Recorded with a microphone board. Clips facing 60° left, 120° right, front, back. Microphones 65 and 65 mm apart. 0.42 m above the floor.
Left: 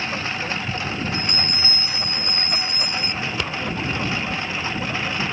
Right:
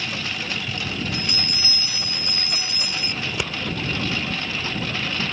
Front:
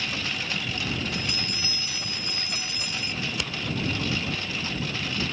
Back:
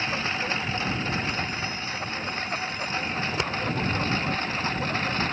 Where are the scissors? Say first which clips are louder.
Left 1 dB, back 4 dB; straight behind.